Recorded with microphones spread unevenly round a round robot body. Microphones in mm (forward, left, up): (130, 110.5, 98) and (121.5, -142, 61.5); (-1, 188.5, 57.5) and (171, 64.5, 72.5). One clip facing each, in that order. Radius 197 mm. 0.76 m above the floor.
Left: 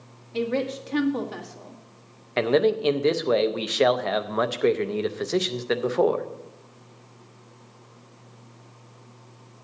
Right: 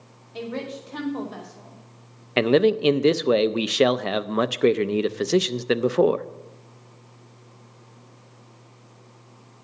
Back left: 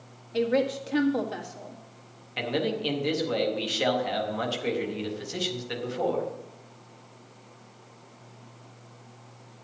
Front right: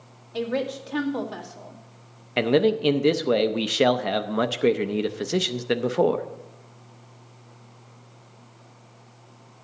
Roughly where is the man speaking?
Ahead right.